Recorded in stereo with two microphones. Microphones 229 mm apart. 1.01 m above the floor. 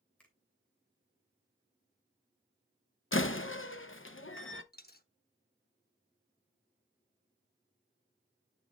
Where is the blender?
No blender in this recording.